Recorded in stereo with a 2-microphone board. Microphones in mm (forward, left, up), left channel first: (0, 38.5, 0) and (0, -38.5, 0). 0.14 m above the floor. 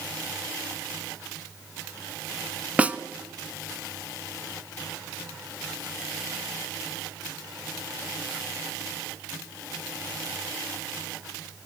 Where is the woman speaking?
No woman speaking in this recording.